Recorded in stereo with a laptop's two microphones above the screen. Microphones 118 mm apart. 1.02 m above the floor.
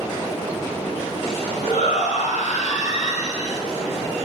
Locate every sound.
1.6 s a shout: 75° left (ahead or behind), 5 m; by 3.6 s 80° left, 5 m